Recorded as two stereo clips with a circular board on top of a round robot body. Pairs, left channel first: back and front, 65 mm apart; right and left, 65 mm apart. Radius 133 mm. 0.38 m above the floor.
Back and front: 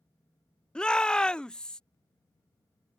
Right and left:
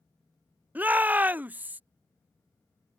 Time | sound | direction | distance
0.8 | a shout | 120° left | ?